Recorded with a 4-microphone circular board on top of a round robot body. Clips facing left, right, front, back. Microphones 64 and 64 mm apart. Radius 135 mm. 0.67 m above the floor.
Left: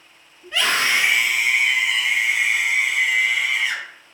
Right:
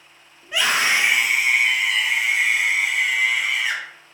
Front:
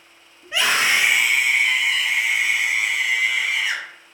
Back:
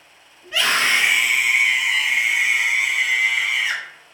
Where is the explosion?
I don't hear an explosion.